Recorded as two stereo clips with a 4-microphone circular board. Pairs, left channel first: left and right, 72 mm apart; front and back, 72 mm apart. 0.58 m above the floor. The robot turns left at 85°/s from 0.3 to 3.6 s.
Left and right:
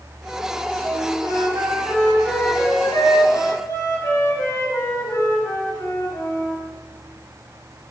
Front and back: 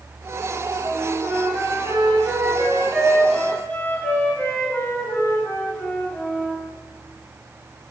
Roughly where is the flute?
Ahead right.